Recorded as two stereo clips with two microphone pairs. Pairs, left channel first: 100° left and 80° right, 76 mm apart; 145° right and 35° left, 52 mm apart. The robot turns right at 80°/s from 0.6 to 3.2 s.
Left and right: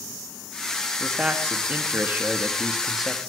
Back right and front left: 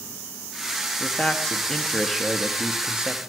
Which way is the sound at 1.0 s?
155° right.